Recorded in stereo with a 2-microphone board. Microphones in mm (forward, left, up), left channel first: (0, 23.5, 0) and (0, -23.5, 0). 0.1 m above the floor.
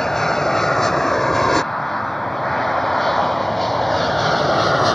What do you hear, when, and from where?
0.0 s an aircraft: 10° left (ahead or behind); by 5.0 s centre (ahead or behind)